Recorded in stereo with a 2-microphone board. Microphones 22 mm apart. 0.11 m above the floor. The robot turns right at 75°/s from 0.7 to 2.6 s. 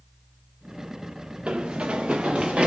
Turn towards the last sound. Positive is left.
turn(degrees=-80)